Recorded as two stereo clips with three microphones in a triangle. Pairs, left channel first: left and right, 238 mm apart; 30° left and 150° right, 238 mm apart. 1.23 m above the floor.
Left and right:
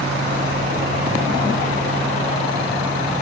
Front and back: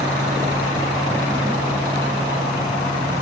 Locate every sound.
Only background noise.